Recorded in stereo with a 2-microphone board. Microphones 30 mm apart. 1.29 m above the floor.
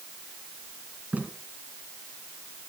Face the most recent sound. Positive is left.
turn(degrees=-70)  # may be behind; listen again after turning